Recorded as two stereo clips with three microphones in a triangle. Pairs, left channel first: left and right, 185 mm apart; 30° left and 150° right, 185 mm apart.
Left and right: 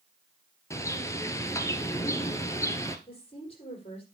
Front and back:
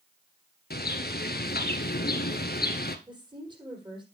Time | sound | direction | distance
0.7 | a bird | 20° left | 0.9 m
3.1 | a woman speaking | 145° left | 5 m